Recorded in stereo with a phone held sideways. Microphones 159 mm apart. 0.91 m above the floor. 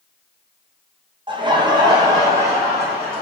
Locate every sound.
1.3 s laughter: 30° right (ahead or behind), 0.5 m; by 3.2 s 20° right (ahead or behind), 1.6 m